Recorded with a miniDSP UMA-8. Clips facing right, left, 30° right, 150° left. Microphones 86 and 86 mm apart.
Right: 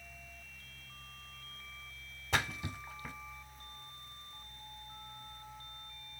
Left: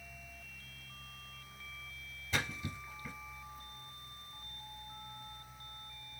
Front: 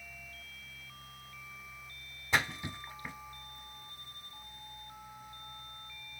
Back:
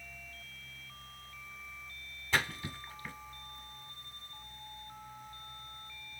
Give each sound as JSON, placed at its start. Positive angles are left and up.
{"t": 2.3, "sound": "a splash", "azimuth_deg": -100, "distance_m": 0.6}